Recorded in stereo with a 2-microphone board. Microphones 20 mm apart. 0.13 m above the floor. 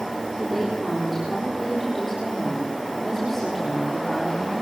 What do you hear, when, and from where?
0.4 s a woman speaking: centre (ahead or behind), 10 m